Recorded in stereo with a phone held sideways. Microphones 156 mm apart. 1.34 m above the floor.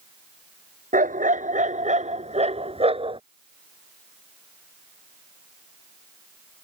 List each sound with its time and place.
0.9 s a dog barking: 60° right (ahead or behind); by 3.2 s 35° right (ahead or behind)